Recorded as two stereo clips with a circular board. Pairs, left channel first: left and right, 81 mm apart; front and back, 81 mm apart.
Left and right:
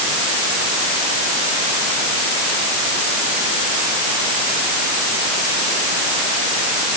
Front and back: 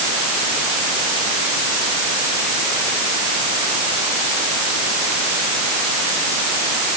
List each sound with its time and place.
Only background noise.